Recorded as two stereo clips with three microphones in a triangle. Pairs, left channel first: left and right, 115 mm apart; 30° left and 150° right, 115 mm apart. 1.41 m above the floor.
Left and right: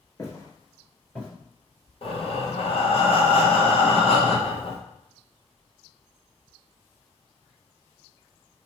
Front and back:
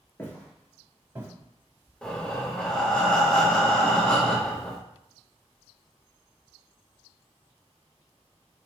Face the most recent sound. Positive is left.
turn(degrees=110)